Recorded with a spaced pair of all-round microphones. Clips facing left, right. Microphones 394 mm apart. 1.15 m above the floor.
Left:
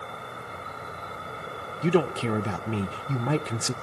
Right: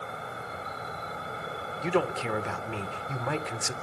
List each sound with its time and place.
0.0 s an insect: 5° left (ahead or behind), 1.8 m
1.8 s a man speaking: 55° left (ahead or behind), 0.6 m